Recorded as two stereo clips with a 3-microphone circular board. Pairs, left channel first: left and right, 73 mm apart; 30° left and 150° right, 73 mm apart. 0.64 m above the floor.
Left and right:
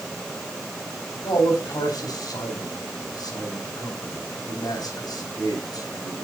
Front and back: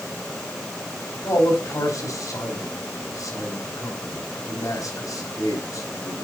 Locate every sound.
1.2 s a man speaking: 65° left, 4 m